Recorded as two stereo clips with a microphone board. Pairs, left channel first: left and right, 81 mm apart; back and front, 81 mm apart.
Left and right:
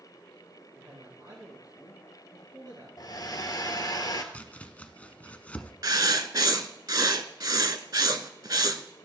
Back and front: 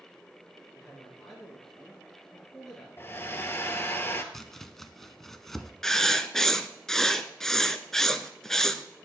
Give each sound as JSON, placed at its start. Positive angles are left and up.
{"t": 0.8, "sound": "a man speaking", "azimuth_deg": -100, "distance_m": 1.8}
{"t": 3.0, "sound": "a hair dryer", "azimuth_deg": 120, "distance_m": 0.9}
{"t": 4.3, "sound": "chopping", "azimuth_deg": 105, "distance_m": 0.5}
{"t": 5.8, "sound": "writing", "azimuth_deg": -100, "distance_m": 0.5}